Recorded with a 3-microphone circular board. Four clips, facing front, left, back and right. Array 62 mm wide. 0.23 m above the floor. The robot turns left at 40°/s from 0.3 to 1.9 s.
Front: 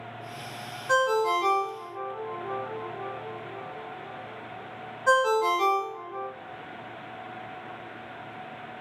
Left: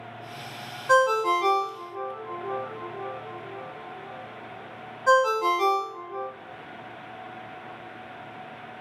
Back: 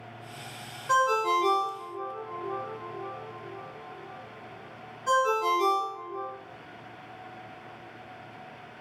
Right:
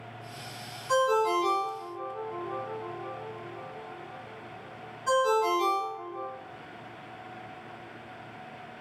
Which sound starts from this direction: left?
A ringtone, at 0.9 s.